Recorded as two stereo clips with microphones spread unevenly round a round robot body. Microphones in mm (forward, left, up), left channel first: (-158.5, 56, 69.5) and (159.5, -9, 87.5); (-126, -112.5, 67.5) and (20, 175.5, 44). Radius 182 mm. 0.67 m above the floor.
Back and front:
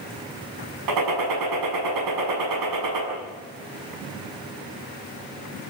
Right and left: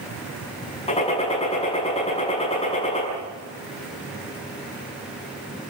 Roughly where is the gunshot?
Ahead right.